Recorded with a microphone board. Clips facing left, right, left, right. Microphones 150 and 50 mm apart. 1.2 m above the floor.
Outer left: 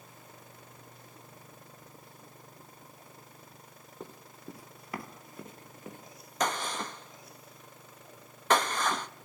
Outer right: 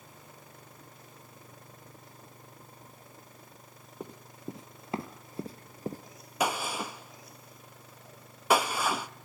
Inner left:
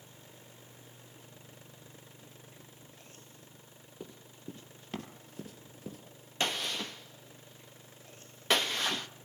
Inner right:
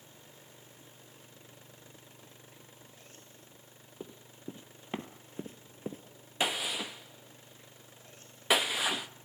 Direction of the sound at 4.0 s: 15° right (ahead or behind).